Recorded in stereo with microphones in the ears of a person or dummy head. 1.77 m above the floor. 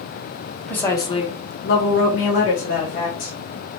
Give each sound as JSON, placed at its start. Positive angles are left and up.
{"t": 0.7, "sound": "a woman speaking", "side_deg": 5, "distance_m": 0.8}